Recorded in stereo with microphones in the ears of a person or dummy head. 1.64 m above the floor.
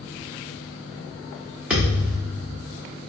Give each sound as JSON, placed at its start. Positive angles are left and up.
{"t": 1.7, "sound": "a thud", "side_deg": -5, "distance_m": 1.2}